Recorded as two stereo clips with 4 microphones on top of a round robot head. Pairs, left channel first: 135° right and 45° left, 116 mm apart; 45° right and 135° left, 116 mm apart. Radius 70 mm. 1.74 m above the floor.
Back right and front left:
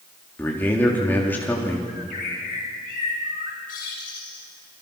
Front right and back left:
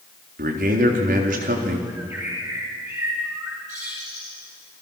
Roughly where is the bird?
Behind.